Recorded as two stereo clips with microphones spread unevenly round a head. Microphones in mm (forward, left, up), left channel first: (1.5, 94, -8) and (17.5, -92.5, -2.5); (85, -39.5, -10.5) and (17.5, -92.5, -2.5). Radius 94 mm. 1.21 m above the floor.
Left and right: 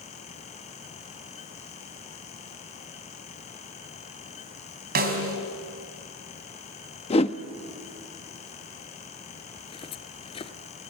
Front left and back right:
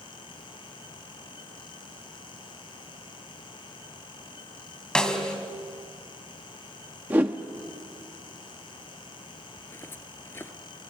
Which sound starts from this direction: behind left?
A whoosh, at 7.1 s.